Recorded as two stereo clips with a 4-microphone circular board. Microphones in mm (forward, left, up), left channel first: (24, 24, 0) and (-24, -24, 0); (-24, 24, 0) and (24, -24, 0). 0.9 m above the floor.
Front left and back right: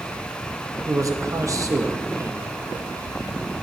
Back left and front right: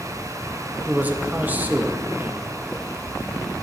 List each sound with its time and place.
0.9 s a man speaking: 110° right, 0.7 m